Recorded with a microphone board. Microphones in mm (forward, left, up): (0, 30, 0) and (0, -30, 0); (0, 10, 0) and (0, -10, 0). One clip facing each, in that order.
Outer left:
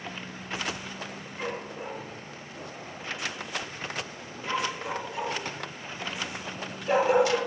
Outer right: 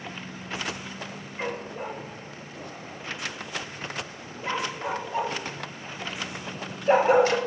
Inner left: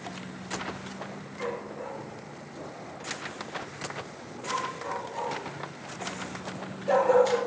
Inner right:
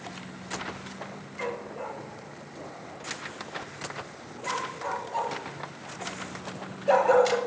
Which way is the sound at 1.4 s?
50° right (ahead or behind).